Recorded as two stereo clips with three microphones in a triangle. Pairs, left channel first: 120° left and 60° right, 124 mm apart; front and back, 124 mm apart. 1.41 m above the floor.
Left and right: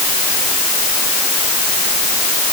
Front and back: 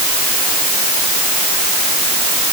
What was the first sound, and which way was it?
Only background noise.